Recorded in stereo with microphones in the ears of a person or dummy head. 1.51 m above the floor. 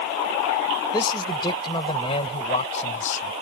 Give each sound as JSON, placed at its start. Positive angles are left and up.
{"t": 0.9, "sound": "a man speaking", "side_deg": 20}